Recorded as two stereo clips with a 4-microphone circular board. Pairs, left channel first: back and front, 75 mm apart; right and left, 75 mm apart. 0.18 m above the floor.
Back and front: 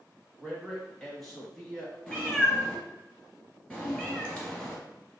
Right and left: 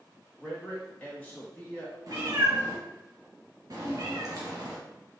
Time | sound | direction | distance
0.4 | a man speaking | 105° right | 1.0 m
2.1 | a cat meowing | 105° left | 1.2 m